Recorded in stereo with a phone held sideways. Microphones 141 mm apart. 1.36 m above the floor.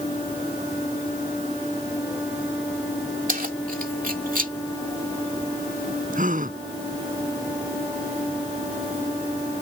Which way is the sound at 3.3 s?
80° right.